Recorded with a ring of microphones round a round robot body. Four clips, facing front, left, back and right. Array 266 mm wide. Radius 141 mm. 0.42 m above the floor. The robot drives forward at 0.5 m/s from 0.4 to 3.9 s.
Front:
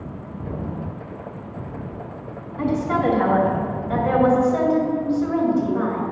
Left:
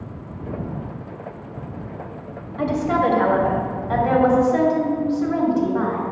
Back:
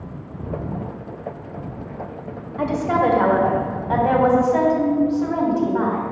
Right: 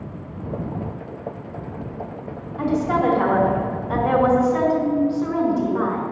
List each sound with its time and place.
2.6 s a woman speaking: 165° left, 2.5 m; by 6.0 s 170° left, 3 m